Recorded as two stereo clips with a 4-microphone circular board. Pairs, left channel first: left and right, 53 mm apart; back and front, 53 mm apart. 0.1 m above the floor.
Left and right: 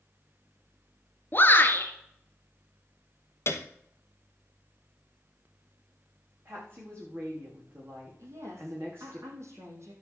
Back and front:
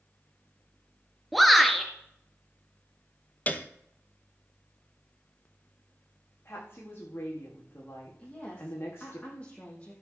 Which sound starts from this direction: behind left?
A piano, at 3.5 s.